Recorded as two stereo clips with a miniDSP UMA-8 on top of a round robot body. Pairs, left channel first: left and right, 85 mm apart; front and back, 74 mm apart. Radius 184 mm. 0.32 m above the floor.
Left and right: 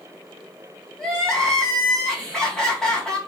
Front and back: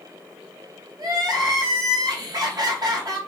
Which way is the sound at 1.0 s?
170° left.